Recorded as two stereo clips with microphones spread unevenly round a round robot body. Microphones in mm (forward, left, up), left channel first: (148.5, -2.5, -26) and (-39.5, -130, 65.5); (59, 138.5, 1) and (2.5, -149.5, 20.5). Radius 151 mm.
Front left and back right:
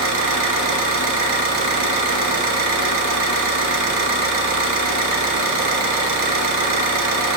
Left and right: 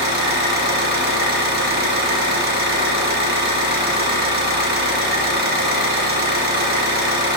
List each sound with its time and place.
0.0 s an engine running: 160° right, 1.2 m